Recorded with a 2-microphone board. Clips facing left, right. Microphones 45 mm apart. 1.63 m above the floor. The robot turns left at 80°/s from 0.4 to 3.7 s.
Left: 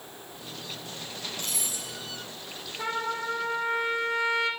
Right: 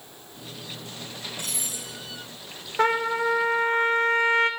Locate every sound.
0.4 s cutlery clinking: 80° right, 9.5 m; by 2.3 s 60° left (ahead or behind), 9.5 m
2.8 s a trumpet: 60° right, 2 m; by 4.5 s 135° right, 2 m